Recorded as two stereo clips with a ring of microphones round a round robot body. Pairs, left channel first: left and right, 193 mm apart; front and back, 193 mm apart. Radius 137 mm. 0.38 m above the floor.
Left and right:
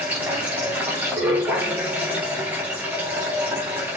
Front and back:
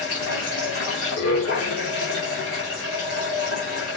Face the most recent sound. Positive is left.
turn(degrees=-10)